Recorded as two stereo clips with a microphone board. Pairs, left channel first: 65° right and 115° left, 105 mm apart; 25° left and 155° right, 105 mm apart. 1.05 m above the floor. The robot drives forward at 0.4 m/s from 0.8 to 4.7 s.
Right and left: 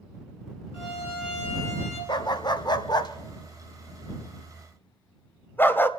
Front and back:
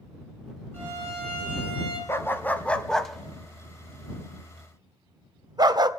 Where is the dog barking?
40° right, 1.0 m; by 5.9 s 130° right, 0.9 m.